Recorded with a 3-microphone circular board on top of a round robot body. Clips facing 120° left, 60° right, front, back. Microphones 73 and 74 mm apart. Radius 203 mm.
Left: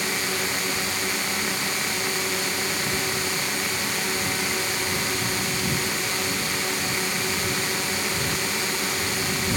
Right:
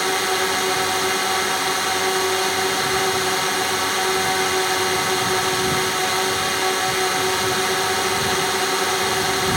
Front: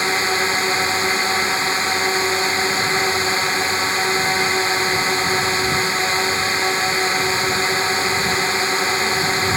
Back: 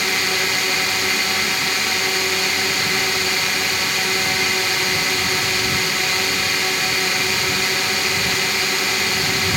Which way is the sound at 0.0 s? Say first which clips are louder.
Right 7 dB, front 3 dB; 55° right.